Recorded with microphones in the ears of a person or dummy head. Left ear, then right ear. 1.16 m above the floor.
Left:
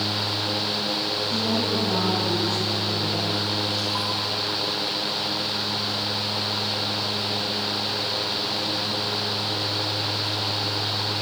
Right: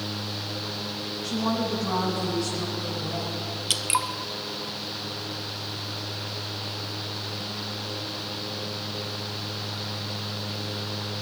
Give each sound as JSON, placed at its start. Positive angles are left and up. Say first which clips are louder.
{"t": 1.2, "sound": "a woman speaking", "louder": "left 4 dB", "side_deg": -70, "distance_m": 9.0}
{"t": 3.7, "sound": "dripping", "louder": "even", "side_deg": -40, "distance_m": 0.8}